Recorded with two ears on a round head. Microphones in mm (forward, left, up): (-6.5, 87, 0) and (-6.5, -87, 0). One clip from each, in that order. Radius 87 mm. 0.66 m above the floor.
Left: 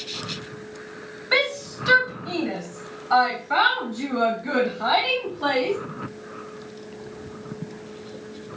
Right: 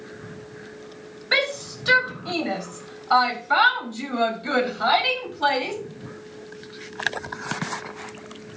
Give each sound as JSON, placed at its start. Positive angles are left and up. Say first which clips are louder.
{"t": 1.3, "sound": "a shout", "louder": "even", "side_deg": -15, "distance_m": 4.0}